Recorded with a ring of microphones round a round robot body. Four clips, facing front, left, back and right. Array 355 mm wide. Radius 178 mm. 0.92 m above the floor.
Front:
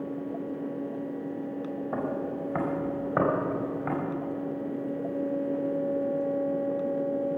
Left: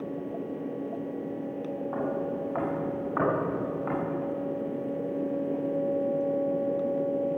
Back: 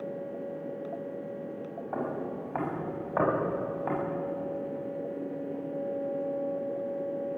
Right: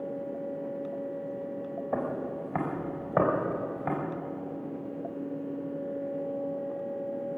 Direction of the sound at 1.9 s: 50° right.